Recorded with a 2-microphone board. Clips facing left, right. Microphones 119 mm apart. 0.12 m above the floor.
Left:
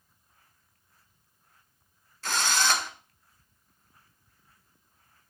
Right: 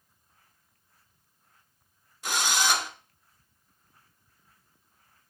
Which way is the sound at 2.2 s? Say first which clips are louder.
Even; 15° right (ahead or behind).